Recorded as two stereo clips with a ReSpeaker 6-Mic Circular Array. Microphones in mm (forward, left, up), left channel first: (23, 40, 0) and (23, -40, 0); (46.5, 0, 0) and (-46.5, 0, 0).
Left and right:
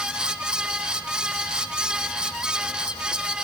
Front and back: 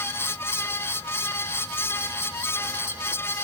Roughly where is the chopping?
I don't hear chopping.